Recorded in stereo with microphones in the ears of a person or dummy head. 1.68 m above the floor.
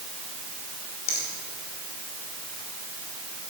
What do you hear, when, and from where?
1.1 s a finger snap: 55° left (ahead or behind), 5 m